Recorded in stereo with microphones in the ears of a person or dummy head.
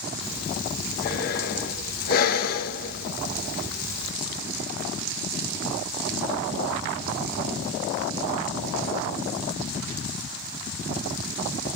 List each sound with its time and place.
0.2 s breathing: 55° left (ahead or behind), 1.7 m